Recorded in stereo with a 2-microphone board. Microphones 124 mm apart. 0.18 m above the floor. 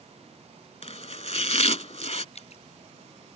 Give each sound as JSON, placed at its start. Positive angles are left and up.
{"t": 0.8, "sound": "chopping", "side_deg": 60}
{"t": 2.4, "sound": "dripping", "side_deg": 55}